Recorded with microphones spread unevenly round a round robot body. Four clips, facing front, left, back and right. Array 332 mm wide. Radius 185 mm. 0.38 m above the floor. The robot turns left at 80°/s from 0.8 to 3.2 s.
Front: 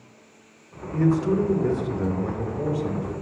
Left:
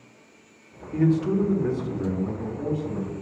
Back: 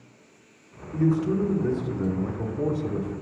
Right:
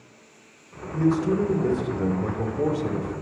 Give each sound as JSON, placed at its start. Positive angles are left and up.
{"t": 0.9, "sound": "a man speaking", "azimuth_deg": 20, "distance_m": 1.7}